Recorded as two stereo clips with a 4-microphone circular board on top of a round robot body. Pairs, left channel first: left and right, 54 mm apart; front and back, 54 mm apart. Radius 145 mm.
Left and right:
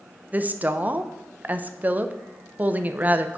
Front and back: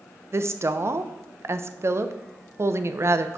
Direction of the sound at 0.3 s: 145° right.